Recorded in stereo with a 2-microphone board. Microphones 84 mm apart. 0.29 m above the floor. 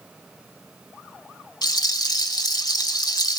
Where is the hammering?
No hammering in this recording.